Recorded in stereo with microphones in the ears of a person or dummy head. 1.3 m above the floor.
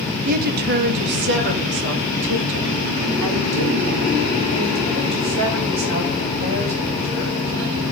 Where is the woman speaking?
45° right (ahead or behind), 1.4 m; by 7.8 s 75° right (ahead or behind), 7 m.